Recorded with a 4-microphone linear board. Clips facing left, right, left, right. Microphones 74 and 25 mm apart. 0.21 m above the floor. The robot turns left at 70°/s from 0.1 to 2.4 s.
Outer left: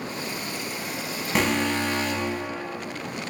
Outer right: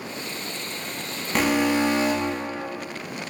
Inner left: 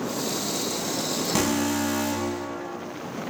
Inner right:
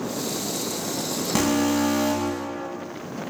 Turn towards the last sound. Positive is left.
turn(degrees=-70)